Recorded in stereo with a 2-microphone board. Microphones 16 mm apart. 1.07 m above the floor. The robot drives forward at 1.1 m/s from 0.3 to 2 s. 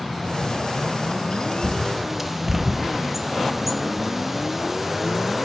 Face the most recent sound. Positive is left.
turn(degrees=-15)  # may be behind; listen again after turning